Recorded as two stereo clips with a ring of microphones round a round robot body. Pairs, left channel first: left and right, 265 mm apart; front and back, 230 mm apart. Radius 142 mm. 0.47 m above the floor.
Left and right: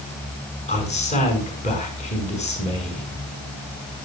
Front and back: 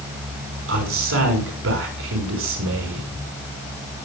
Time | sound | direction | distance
0.7 | a man speaking | 155° left | 5.5 m